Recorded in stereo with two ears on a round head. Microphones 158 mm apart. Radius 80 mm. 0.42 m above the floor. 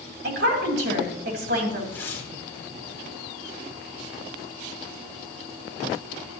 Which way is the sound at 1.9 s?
15° left (ahead or behind).